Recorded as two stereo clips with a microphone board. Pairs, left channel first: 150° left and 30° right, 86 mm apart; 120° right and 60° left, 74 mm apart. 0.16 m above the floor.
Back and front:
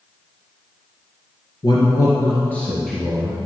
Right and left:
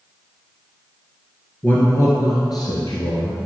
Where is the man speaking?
Straight behind, 2 m; by 3.4 s 110° right, 2.5 m.